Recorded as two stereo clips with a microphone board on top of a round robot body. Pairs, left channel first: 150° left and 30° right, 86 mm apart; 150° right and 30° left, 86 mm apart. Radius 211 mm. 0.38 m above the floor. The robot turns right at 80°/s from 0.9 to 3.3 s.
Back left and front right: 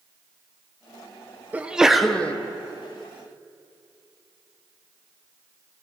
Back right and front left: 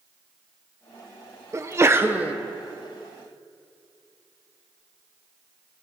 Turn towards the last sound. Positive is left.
turn(degrees=165)